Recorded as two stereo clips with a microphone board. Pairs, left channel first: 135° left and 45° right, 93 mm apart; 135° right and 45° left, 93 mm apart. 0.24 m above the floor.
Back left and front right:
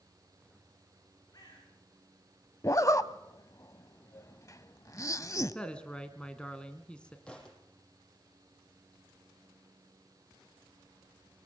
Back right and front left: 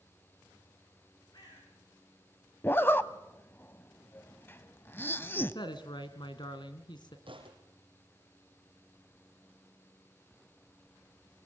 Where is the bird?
175° right, 9.5 m.